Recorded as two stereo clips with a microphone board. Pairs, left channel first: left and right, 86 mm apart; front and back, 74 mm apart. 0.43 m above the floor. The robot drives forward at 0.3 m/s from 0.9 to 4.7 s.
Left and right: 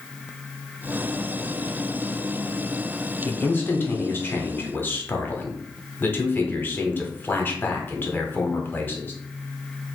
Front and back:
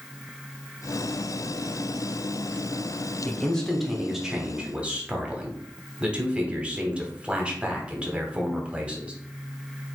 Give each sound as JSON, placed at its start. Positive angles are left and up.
{"t": 3.2, "sound": "a man speaking", "azimuth_deg": 60, "distance_m": 0.9}